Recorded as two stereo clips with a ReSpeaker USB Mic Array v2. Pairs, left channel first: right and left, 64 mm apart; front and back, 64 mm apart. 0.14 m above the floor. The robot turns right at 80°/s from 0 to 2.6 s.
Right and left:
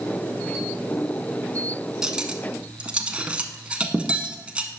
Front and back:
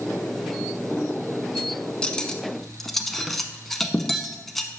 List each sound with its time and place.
2.0 s cutlery clinking: 30° left, 0.6 m; by 4.7 s 80° left, 0.6 m